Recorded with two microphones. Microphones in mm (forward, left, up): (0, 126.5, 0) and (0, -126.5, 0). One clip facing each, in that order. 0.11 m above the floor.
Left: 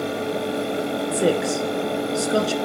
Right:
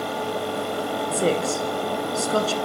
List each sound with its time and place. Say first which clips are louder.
1.1 s a woman speaking: left 2 dB; 15° left (ahead or behind), 1.6 m